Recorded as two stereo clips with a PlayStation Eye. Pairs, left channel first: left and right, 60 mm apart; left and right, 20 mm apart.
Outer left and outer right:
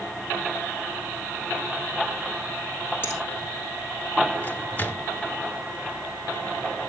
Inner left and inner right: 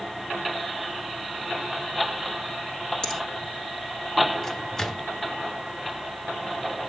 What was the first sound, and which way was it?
A finger snap, 30° left (ahead or behind).